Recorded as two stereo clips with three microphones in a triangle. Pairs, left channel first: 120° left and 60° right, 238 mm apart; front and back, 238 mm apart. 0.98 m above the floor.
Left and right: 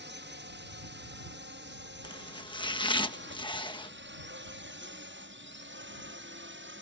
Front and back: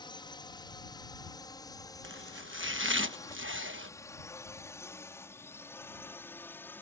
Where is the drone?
65° right; by 6.8 s 80° right.